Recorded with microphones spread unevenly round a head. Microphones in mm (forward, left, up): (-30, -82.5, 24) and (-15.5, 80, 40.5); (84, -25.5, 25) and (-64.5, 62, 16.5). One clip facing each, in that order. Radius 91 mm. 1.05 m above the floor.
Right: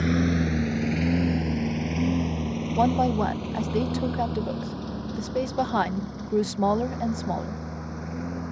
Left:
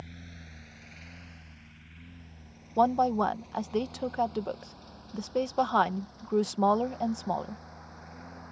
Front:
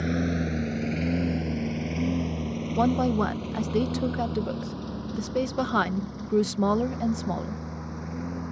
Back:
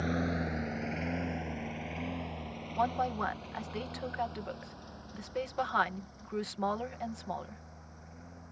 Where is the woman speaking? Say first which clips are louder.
Right 2 dB, front 9 dB; 25° right.